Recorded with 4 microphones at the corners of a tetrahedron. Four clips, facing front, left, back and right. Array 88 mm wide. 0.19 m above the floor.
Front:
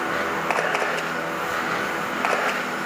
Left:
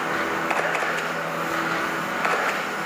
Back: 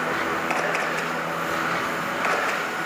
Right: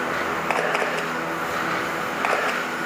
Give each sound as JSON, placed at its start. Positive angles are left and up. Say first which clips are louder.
{"t": 0.5, "sound": "a camera shutter", "louder": "right 3 dB, front 1 dB", "azimuth_deg": -45, "distance_m": 6.0}